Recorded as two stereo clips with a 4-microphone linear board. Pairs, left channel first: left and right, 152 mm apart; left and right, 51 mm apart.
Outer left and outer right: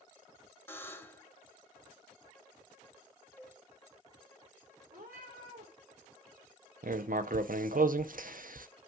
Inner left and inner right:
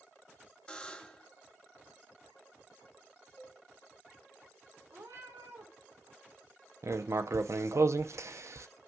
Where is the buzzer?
15° left (ahead or behind), 0.9 m.